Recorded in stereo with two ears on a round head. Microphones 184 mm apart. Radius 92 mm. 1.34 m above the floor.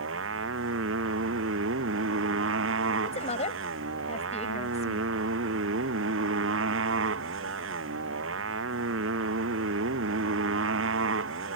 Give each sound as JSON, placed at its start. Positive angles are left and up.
{"t": 0.0, "sound": "a motorcycle", "side_deg": -75}
{"t": 3.0, "sound": "a woman speaking", "side_deg": 35}